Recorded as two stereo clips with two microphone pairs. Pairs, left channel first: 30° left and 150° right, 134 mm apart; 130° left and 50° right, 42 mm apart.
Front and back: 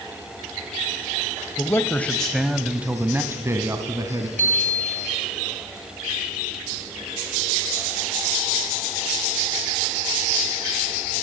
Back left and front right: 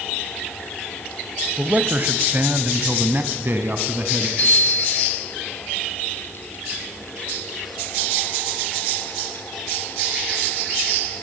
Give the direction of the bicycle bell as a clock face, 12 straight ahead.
6 o'clock.